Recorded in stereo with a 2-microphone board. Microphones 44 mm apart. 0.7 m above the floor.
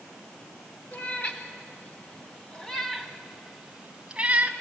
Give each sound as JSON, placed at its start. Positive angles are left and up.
{"t": 0.9, "sound": "a cat meowing", "side_deg": 45, "distance_m": 2.5}